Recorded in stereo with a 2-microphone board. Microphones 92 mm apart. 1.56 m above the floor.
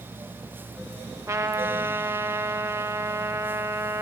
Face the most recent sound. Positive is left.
turn(degrees=-35)  # may be behind; listen again after turning